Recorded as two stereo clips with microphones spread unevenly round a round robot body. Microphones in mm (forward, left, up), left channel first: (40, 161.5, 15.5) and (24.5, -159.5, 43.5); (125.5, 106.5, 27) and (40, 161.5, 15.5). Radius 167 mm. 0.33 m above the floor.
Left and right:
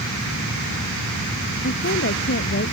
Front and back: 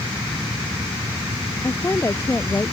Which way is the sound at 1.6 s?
30° left.